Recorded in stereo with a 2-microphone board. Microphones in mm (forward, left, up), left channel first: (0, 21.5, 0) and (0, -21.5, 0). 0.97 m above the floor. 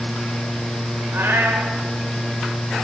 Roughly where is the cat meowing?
Right.